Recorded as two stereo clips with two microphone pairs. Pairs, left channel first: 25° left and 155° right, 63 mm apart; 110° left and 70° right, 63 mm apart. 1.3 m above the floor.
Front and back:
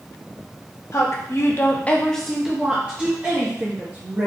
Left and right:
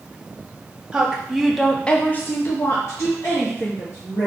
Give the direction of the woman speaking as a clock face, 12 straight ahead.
12 o'clock.